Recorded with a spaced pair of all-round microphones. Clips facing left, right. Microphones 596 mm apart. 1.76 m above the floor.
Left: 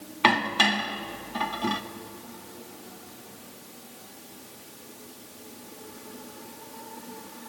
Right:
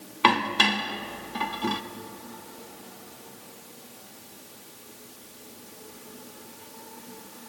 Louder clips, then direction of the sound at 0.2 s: Even; 5° left (ahead or behind).